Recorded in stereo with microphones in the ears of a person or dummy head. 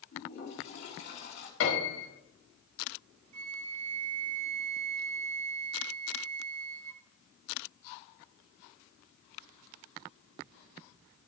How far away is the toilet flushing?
About 2 m.